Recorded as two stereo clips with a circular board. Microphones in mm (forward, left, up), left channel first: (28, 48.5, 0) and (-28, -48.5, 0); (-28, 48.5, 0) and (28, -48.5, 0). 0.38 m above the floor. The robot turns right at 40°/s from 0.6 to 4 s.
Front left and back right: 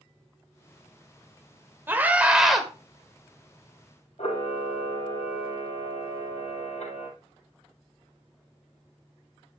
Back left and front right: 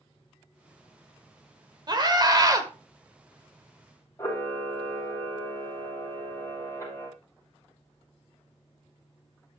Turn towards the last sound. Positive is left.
turn(degrees=55)